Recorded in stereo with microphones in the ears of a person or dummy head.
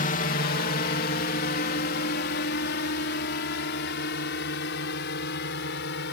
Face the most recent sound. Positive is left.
turn(degrees=60)  # may be behind; listen again after turning